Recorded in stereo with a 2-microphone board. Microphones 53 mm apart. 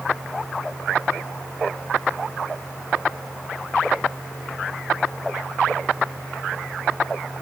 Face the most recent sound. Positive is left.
No sound to turn to.